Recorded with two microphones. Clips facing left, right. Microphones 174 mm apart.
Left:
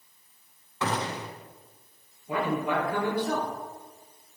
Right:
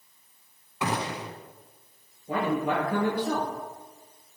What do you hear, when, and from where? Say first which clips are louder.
0.8 s a gunshot: even; 15° right (ahead or behind), 0.8 m
2.3 s a man speaking: right 1 dB; 45° right (ahead or behind), 3 m